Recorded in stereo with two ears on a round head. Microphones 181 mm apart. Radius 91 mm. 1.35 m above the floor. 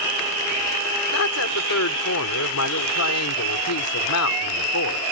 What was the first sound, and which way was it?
A woman speaking, 90° left.